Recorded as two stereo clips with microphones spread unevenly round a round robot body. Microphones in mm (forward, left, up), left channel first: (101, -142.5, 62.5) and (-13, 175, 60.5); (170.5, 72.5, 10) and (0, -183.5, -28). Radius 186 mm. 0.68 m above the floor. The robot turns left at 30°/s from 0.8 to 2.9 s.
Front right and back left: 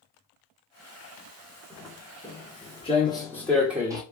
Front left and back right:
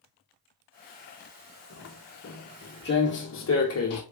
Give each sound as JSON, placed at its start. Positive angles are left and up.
{"t": 1.7, "sound": "footsteps", "azimuth_deg": 25, "distance_m": 2.0}